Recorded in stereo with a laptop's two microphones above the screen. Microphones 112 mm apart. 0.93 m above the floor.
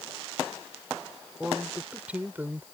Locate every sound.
1.4 s a man speaking: 5° right (ahead or behind); by 2.7 s 20° right (ahead or behind)